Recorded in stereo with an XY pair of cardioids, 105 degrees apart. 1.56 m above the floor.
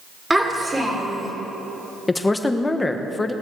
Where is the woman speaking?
20° left, 1.3 m.